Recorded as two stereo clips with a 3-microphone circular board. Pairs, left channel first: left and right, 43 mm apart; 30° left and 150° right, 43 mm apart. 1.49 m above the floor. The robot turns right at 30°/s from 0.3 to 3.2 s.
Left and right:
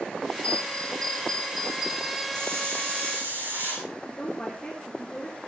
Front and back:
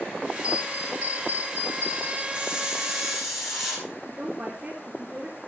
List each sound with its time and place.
0.4 s a bell: 150° left, 4 m; by 2.2 s 155° right, 4 m
2.3 s a hiss: 90° right, 9 m; by 3.9 s 60° right, 9 m
4.0 s a woman speaking: 160° left, 3.5 m